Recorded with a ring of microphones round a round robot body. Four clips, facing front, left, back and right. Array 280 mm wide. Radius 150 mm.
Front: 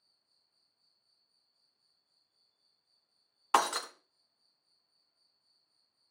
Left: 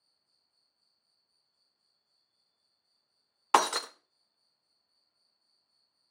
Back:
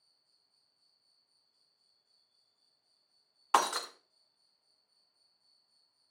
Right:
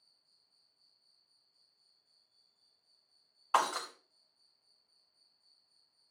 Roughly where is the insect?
Behind right.